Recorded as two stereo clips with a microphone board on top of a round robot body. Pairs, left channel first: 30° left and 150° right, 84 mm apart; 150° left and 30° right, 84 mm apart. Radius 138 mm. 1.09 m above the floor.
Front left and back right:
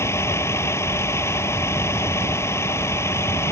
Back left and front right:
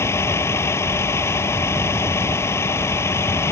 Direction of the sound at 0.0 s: 90° left.